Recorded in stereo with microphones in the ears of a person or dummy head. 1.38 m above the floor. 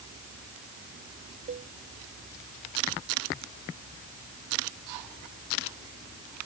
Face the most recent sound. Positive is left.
turn(degrees=-40)  # may be behind; listen again after turning